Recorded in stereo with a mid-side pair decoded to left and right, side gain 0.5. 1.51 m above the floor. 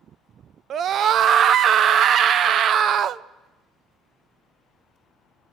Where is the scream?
55° right, 0.6 m.